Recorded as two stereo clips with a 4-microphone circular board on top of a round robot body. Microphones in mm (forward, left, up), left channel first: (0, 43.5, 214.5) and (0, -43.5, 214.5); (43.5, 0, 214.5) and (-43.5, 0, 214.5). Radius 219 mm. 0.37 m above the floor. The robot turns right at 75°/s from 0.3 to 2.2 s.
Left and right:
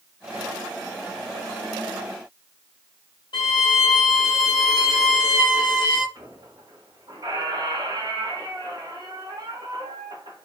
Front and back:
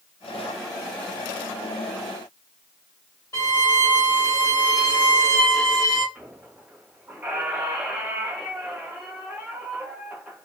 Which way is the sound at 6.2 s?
110° right.